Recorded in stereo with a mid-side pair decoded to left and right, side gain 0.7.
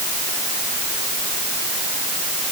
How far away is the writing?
I don't hear writing.